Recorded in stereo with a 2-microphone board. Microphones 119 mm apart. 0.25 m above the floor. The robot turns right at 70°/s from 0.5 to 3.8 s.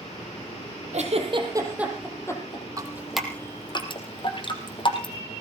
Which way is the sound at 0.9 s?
70° right (ahead or behind).